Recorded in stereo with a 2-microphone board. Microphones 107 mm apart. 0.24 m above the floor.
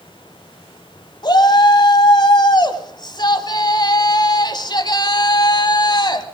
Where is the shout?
40° left (ahead or behind), 1.6 m.